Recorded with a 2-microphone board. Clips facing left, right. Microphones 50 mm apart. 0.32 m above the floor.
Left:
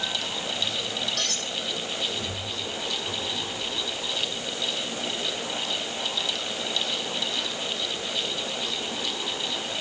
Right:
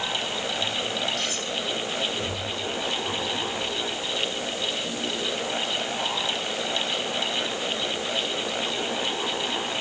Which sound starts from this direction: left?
Cutlery clinking, at 1.2 s.